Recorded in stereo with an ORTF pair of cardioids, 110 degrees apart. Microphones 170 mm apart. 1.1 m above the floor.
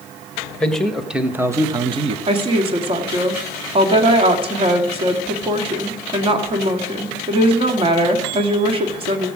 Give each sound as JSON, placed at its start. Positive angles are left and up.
{"t": 0.6, "sound": "a man speaking", "azimuth_deg": 5, "distance_m": 1.4}
{"t": 2.3, "sound": "a woman speaking", "azimuth_deg": -35, "distance_m": 2.0}